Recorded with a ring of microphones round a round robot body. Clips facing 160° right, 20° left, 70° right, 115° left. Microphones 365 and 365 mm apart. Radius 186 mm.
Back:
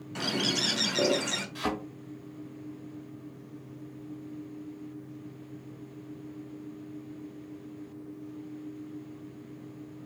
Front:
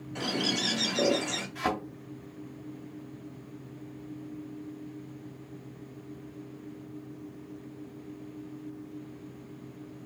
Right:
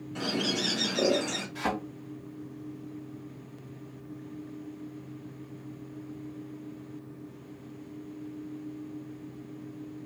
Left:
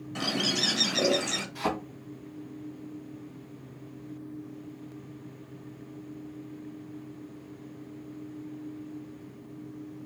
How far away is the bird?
About 0.8 m.